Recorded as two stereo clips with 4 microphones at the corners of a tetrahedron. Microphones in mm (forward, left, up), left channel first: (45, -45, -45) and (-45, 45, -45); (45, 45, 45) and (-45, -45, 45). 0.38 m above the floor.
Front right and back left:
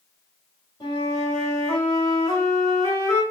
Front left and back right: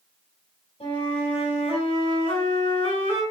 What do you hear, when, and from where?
0.8 s a flute: 10° left, 3.5 m